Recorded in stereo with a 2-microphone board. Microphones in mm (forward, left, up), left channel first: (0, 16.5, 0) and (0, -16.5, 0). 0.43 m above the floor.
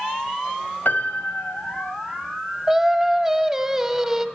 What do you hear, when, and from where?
0.8 s a piano: 65° left (ahead or behind), 1.2 m
2.7 s singing: 15° right (ahead or behind), 0.9 m